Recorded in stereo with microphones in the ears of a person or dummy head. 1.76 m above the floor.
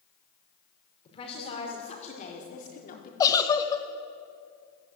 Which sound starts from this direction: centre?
A giggle, at 3.2 s.